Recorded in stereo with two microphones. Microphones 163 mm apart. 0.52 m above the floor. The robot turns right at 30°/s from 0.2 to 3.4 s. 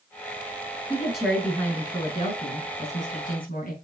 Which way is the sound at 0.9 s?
10° right.